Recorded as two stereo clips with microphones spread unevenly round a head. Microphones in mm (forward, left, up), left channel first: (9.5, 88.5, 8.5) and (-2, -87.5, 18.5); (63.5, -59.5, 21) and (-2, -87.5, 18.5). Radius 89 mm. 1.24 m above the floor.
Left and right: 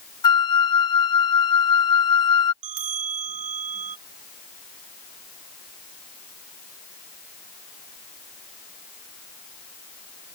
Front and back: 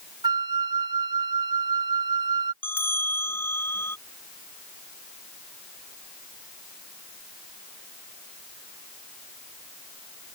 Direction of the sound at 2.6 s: 40° right.